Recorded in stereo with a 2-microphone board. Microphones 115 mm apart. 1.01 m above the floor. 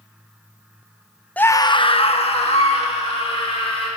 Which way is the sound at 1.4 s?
15° left (ahead or behind).